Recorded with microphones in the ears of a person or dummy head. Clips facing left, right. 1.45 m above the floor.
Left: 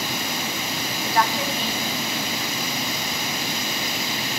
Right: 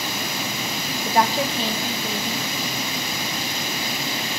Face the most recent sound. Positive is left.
turn(degrees=-30)  # may be behind; listen again after turning